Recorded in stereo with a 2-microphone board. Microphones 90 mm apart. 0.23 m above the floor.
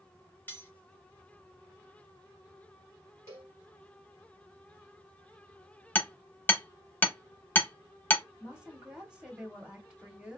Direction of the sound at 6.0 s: 20° left (ahead or behind).